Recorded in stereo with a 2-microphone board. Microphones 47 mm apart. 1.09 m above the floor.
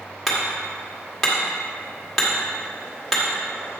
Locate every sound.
0.3 s hammering: 5° left (ahead or behind), 1.8 m